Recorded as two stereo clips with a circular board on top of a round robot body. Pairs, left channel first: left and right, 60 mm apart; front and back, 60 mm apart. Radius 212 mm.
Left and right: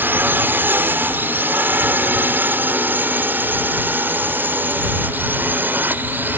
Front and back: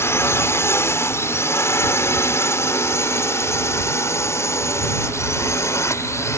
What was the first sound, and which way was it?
A drone, 40° right.